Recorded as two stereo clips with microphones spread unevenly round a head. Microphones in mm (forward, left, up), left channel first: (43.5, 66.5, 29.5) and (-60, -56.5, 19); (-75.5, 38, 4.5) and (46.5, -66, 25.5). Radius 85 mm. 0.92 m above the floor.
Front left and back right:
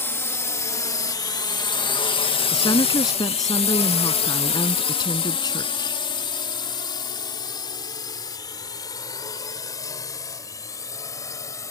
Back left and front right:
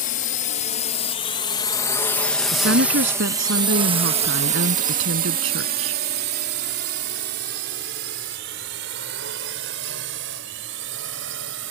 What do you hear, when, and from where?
0.0 s a drone: 125° left; by 11.7 s 25° right
2.5 s a woman speaking: 20° right